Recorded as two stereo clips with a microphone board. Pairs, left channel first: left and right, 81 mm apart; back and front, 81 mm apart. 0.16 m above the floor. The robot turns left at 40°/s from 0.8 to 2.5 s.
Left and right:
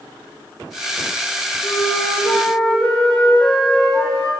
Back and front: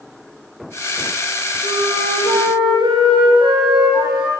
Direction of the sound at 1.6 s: 45° left.